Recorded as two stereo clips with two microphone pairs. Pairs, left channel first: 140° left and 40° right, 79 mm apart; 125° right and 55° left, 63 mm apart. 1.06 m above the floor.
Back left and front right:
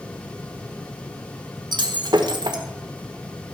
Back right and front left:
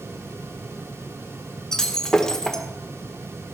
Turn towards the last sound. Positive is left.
turn(degrees=-45)